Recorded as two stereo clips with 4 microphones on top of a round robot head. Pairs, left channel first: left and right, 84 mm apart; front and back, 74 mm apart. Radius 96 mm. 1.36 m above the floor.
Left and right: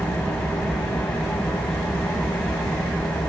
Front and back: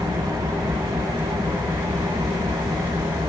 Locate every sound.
0.0 s an engine running: 165° left, 3.5 m